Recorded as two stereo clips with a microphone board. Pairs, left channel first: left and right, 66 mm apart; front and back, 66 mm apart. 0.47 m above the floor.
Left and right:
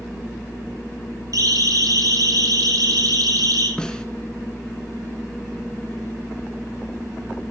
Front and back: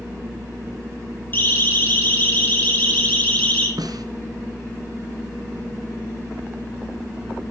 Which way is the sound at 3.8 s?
170° left.